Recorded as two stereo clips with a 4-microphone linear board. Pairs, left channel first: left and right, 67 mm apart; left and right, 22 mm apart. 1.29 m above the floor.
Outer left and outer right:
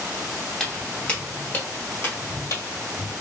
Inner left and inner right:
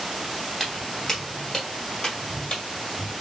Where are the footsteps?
10° left (ahead or behind), 1.5 m; by 3.1 s 50° left (ahead or behind), 2.0 m.